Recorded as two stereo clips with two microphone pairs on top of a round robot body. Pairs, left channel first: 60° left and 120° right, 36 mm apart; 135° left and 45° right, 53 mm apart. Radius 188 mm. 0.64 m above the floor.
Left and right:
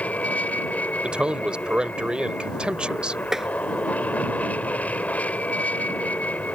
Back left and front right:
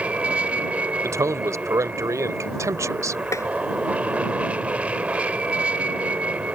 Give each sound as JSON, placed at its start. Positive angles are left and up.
{"t": 0.0, "sound": "an aircraft", "azimuth_deg": 15}
{"t": 1.0, "sound": "a man speaking", "azimuth_deg": -55}
{"t": 3.3, "sound": "tapping", "azimuth_deg": 165}